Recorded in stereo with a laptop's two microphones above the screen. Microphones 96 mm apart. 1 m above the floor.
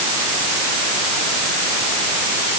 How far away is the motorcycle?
I don't hear a motorcycle.